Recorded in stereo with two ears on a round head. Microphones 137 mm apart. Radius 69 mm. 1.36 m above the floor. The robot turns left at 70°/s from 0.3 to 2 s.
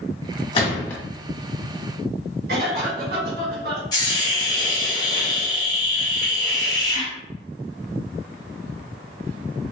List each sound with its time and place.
0.5 s a gunshot: 30° left (ahead or behind), 1.7 m; by 1.0 s 5° left (ahead or behind), 1.7 m
2.5 s a cough: 65° right (ahead or behind), 1.4 m
3.9 s a hiss: 25° left (ahead or behind), 1.3 m